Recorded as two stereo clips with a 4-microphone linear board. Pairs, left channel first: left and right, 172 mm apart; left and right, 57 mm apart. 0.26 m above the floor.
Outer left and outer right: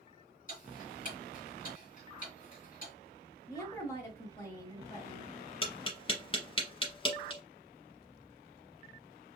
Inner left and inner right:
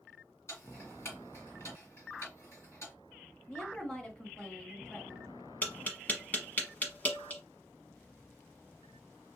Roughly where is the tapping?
Left.